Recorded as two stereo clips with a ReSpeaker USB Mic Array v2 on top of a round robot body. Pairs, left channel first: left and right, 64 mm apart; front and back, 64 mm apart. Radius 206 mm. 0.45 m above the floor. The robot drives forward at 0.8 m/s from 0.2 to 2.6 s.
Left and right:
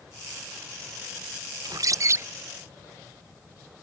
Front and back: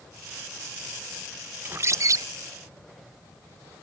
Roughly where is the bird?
Behind right.